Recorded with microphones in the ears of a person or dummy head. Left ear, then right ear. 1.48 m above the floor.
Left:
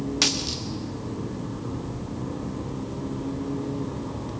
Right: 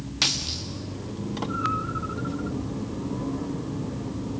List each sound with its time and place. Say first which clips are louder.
0.2 s a dropped coin: even; 5° left (ahead or behind), 1.4 m